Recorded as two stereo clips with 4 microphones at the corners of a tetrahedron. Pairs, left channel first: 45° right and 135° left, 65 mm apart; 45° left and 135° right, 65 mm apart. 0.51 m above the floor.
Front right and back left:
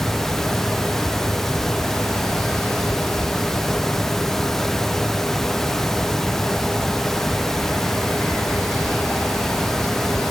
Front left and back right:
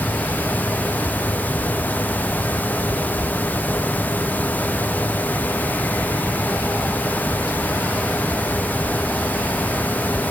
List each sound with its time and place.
Only background noise.